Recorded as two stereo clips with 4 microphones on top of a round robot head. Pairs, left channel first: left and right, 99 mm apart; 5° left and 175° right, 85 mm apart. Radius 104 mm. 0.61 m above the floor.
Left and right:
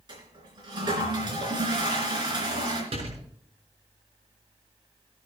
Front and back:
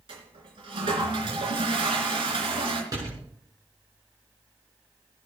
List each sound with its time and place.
0.1 s a toilet flushing: 140° right, 3.5 m
2.9 s a door slam: 125° right, 6.5 m